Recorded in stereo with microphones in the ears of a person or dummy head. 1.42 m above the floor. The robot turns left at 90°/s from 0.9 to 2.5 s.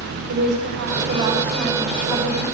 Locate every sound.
0.3 s a woman speaking: 120° right, 7.5 m; by 2.5 s 100° left, 7.5 m